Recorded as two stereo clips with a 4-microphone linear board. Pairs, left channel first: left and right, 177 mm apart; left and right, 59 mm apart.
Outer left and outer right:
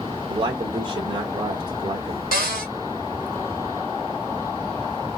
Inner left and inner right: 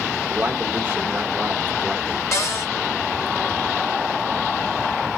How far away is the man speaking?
About 0.8 m.